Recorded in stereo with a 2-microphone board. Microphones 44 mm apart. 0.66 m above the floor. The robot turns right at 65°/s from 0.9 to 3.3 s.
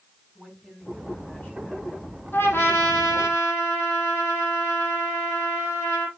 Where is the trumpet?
55° left, 4 m; by 6.1 s 120° left, 4 m.